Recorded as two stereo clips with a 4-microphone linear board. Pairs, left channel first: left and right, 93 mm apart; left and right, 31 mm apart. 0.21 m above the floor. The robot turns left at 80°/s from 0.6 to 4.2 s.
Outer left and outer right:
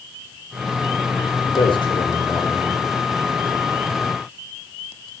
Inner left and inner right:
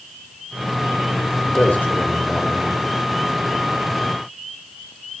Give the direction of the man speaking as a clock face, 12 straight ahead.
9 o'clock.